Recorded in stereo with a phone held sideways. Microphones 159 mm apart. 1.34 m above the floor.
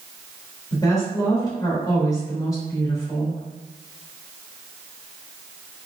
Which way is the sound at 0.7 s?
25° left (ahead or behind).